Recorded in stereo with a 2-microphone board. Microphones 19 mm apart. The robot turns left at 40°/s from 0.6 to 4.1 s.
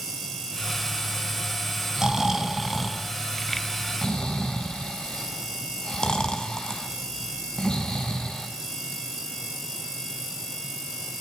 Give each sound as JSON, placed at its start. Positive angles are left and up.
{"t": 2.0, "sound": "snoring", "side_deg": -30, "distance_m": 4.0}